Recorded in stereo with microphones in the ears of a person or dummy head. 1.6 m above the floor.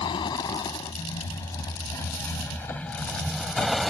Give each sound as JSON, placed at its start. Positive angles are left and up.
{"t": 0.0, "sound": "a vehicle", "side_deg": 25}